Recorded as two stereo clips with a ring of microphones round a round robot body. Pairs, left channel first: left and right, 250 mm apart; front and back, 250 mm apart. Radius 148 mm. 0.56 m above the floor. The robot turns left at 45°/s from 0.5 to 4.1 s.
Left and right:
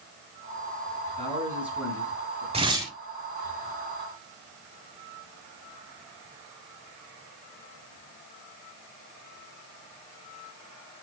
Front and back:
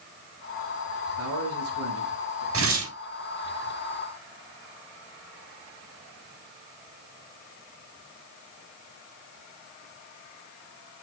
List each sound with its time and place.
1.2 s a man speaking: 155° right, 7 m; by 2.4 s 150° left, 7 m
2.5 s tearing paper: 155° right, 4 m; by 2.9 s 175° right, 4 m